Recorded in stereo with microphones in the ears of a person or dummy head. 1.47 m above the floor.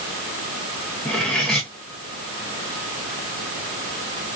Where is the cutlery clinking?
Centre (ahead or behind), 0.9 m.